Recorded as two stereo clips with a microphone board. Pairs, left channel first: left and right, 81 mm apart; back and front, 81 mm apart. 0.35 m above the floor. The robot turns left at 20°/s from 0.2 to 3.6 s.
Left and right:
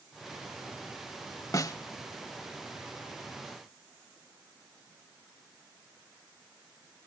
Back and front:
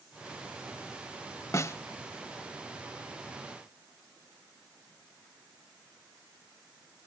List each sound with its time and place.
1.5 s a snare drum: 130° left, 0.5 m; by 1.8 s 125° left, 0.5 m